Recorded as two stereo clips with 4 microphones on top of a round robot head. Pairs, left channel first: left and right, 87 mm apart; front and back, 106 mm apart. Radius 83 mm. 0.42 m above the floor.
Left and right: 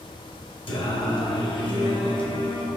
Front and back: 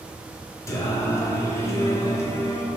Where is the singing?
65° left, 0.6 m.